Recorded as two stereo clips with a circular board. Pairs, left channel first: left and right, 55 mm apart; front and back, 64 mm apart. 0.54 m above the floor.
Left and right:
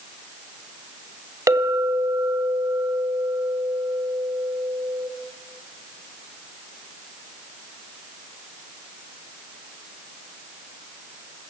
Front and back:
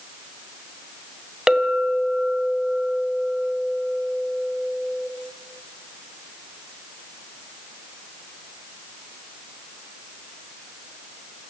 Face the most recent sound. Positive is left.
turn(degrees=-100)